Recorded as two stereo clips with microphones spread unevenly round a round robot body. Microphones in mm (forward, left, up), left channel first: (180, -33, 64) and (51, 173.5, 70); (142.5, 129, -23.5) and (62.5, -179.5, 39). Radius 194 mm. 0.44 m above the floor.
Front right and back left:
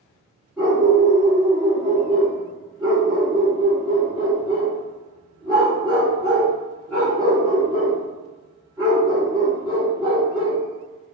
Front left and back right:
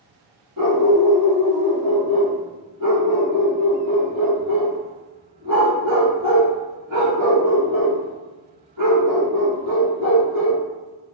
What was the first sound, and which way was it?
A dog barking, 150° right.